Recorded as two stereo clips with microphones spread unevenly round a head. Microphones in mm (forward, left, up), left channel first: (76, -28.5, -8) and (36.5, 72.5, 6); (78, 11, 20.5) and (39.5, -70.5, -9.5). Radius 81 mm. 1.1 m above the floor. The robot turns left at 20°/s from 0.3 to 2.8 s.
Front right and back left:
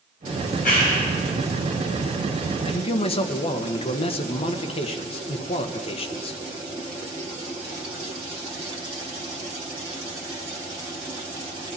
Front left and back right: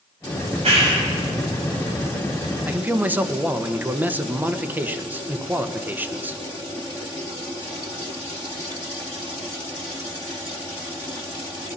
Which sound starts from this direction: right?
A clap, at 0.4 s.